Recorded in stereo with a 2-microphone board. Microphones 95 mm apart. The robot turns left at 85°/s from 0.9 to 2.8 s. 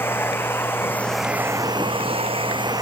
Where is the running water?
25° left; by 2.8 s 140° right.